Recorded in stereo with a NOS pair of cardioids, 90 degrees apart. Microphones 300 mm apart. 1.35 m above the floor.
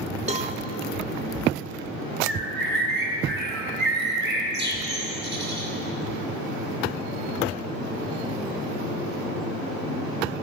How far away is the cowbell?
About 0.6 m.